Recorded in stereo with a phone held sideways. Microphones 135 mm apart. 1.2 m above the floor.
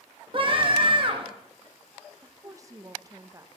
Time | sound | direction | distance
0.3 | a scream | 40° right (ahead or behind) | 1.4 m
2.2 | a woman speaking | 25° right (ahead or behind) | 0.7 m